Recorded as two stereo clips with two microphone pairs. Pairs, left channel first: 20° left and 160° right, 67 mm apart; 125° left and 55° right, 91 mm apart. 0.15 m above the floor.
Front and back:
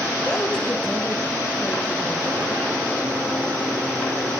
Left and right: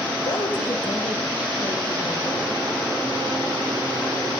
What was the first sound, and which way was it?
A woman speaking, 100° left.